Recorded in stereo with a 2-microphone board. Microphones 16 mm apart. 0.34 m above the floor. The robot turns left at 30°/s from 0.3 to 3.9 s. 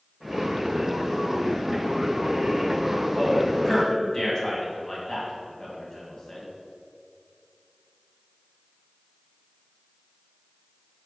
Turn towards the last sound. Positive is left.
turn(degrees=35)  # may be behind; listen again after turning